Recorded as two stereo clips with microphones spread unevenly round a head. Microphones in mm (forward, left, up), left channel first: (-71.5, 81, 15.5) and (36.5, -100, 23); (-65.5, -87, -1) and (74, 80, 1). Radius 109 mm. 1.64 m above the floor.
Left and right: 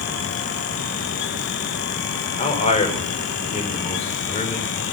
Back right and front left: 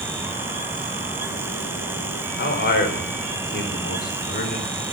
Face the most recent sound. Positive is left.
turn(degrees=180)